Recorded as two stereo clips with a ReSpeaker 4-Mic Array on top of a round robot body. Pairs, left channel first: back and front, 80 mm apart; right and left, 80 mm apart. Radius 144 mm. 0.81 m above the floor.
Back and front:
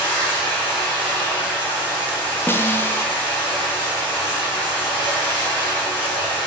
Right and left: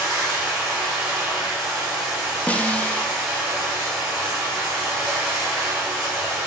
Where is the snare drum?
150° right, 0.6 m.